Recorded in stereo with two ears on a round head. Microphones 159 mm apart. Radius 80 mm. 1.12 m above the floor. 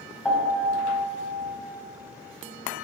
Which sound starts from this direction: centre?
A piano, at 0.2 s.